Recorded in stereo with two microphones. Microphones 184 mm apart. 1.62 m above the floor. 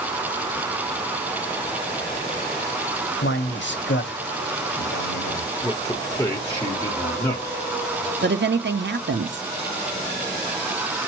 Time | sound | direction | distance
3.2 | a man speaking | 80° left | 1.1 m
5.6 | a man speaking | 15° left (ahead or behind) | 1.0 m
8.2 | a woman speaking | 75° right (ahead or behind) | 0.5 m